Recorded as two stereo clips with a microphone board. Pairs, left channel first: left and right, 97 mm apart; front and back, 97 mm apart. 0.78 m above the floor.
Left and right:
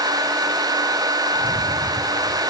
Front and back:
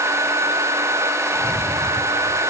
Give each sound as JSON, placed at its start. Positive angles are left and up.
{"t": 1.4, "sound": "a rattle", "azimuth_deg": 75, "distance_m": 1.7}